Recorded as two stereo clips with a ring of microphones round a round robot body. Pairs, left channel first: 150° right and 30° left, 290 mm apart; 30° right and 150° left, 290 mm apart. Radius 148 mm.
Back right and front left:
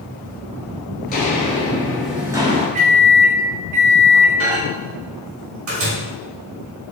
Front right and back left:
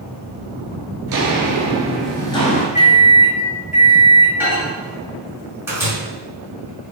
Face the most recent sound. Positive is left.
turn(degrees=70)